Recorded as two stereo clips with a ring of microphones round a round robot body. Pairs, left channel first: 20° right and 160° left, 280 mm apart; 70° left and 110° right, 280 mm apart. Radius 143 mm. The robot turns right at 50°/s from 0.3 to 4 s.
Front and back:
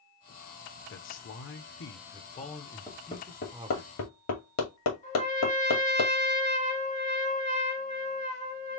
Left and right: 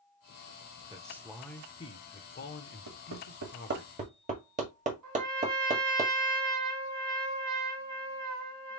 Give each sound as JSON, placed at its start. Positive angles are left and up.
{"t": 0.9, "sound": "a man speaking", "azimuth_deg": -45, "distance_m": 1.0}
{"t": 2.9, "sound": "hammering", "azimuth_deg": -105, "distance_m": 2.0}
{"t": 5.0, "sound": "a trumpet", "azimuth_deg": -85, "distance_m": 2.5}